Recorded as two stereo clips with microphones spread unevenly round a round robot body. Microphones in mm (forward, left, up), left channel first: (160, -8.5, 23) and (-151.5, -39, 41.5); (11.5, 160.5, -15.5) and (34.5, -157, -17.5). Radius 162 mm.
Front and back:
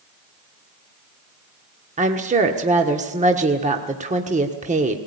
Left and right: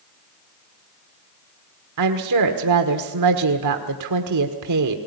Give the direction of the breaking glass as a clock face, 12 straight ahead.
No breaking glass in this recording.